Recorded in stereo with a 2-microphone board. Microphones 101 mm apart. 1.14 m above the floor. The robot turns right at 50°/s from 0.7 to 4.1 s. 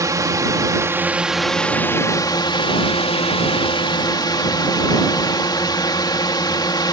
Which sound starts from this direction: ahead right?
A drone, at 0.0 s.